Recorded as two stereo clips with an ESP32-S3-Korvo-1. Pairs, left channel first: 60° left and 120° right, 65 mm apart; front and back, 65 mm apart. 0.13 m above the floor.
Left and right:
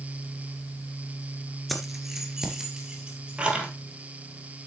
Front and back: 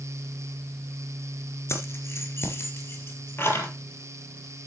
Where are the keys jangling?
30° right, 1.5 m; by 3.7 s 50° right, 2.5 m.